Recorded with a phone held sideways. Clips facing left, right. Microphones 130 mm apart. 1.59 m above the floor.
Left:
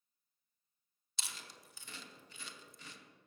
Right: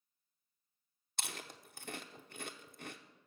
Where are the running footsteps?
No running footsteps in this recording.